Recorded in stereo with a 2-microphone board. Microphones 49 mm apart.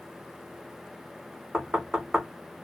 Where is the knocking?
10° right (ahead or behind), 0.9 m.